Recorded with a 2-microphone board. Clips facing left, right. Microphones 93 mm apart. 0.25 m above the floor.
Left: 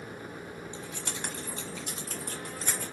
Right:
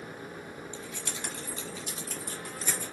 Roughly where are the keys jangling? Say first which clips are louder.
Left 1 dB; left.